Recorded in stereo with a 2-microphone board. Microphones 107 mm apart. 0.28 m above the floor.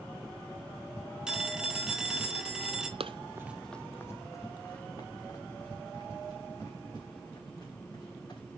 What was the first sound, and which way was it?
A phone ringing, 5° right (ahead or behind).